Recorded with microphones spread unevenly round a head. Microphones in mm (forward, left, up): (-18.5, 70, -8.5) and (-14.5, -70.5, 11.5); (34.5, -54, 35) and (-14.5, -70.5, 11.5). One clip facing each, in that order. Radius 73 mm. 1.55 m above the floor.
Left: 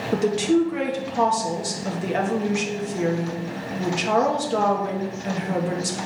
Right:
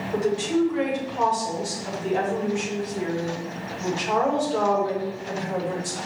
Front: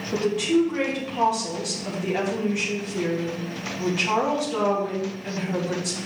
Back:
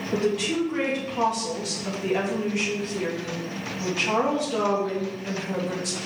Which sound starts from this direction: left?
A woman speaking, at 0.1 s.